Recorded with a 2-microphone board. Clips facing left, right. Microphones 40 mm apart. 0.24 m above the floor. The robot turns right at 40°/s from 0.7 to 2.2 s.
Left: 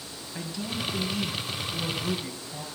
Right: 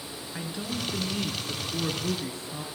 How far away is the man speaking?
About 4 m.